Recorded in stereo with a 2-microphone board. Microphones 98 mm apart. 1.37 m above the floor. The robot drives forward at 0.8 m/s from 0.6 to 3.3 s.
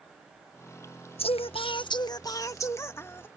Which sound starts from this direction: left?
Singing, at 1.2 s.